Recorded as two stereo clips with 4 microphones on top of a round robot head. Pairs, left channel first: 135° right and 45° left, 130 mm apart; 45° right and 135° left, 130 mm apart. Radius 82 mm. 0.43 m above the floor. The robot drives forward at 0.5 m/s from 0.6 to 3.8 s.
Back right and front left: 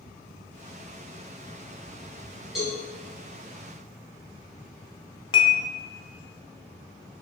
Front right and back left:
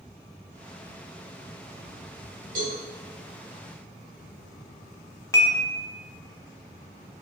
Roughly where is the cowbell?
Behind left.